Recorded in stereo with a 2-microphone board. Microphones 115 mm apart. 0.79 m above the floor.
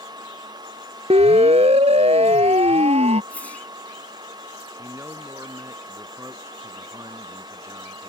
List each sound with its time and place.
1.1 s a siren: 60° right (ahead or behind); by 3.2 s 65° right (ahead or behind)
3.3 s a whoosh: 10° left (ahead or behind)
4.8 s a man speaking: 25° right (ahead or behind)